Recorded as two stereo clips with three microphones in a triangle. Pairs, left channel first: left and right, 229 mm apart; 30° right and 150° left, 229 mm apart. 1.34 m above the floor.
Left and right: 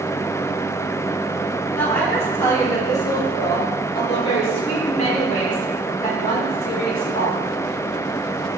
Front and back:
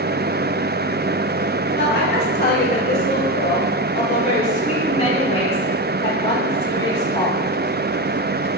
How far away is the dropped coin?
I don't hear a dropped coin.